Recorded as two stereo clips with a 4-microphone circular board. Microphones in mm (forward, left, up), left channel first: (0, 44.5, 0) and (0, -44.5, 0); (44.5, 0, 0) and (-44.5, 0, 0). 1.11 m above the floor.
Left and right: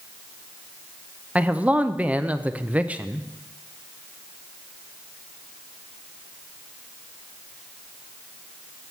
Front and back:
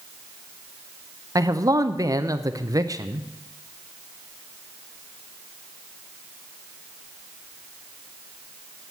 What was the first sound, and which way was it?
A man speaking, 160° right.